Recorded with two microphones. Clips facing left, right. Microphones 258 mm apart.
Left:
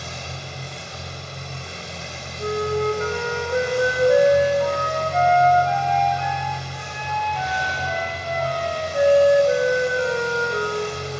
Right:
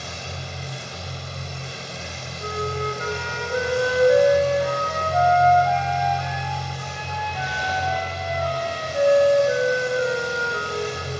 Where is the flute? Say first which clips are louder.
Left 6 dB; 30° left (ahead or behind), 2.5 m.